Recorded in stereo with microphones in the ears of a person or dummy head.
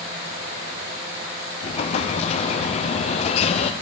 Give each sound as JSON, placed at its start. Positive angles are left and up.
{"t": 1.6, "sound": "an explosion", "side_deg": 40, "distance_m": 0.7}